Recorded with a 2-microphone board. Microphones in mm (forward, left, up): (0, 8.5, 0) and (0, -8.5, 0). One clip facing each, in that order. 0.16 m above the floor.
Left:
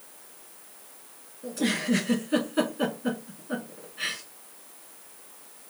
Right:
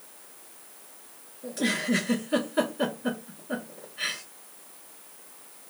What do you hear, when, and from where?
1.4 s a giggle: 5° right (ahead or behind), 3.5 m